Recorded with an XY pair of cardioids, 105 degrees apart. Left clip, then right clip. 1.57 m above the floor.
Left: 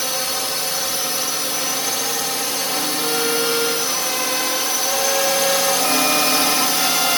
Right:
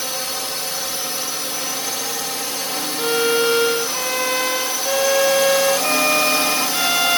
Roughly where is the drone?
Ahead.